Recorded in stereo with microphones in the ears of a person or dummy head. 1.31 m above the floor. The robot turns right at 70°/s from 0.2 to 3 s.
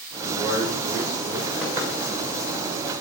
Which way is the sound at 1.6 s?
10° right (ahead or behind).